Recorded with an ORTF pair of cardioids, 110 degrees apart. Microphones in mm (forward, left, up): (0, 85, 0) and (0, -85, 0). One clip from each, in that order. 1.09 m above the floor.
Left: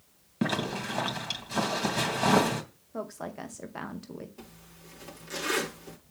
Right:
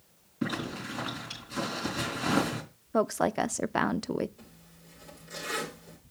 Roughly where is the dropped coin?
No dropped coin in this recording.